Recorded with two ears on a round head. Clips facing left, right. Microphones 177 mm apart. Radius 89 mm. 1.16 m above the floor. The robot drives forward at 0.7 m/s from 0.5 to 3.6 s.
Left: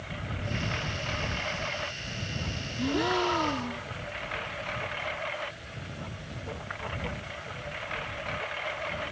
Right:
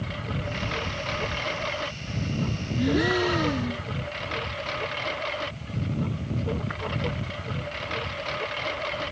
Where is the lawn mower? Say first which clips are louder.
Right 5 dB; 55° right (ahead or behind).